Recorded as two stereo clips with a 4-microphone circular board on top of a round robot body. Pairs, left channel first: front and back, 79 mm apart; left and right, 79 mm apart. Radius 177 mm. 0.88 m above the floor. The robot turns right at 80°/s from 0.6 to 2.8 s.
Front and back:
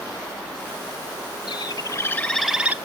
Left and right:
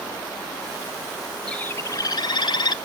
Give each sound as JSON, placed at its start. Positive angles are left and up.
{"t": 1.5, "sound": "a bird", "azimuth_deg": 15, "distance_m": 1.1}